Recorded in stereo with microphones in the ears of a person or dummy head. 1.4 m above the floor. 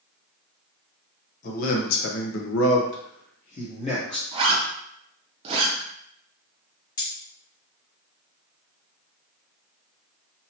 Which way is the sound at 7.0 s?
25° left (ahead or behind).